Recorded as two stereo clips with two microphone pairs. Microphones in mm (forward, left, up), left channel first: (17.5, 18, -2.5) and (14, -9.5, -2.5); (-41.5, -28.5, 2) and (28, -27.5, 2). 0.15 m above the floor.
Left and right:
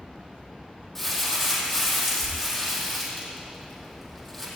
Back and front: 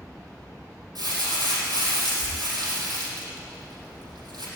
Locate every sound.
0.9 s crumpling: 5° left, 5 m